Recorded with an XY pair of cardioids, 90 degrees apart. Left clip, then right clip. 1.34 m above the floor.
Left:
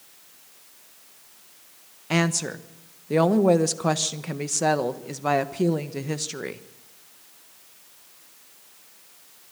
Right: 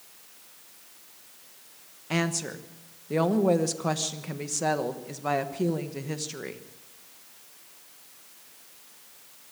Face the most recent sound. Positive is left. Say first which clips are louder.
# left 4 dB
turn(degrees=35)